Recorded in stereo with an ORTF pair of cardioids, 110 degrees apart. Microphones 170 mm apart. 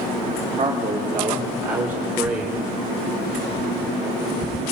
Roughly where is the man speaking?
Ahead right.